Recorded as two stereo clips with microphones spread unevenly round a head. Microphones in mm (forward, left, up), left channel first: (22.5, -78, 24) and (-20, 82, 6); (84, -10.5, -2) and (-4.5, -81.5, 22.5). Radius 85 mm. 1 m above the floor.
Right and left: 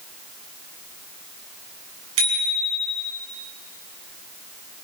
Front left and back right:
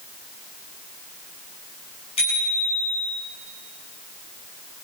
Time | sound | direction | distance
2.2 | a bicycle bell | 95° left | 7 m